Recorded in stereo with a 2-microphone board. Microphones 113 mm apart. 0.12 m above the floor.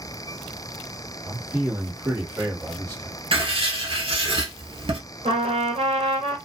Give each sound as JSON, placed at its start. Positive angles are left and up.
{"t": 1.2, "sound": "a man speaking", "side_deg": -10, "distance_m": 2.0}
{"t": 3.3, "sound": "writing", "side_deg": -50, "distance_m": 1.1}
{"t": 5.2, "sound": "a trumpet", "side_deg": -65, "distance_m": 1.2}